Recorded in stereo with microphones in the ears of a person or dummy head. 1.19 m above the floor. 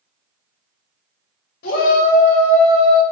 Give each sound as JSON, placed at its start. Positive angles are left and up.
{"t": 1.6, "sound": "a shout", "side_deg": 55, "distance_m": 1.3}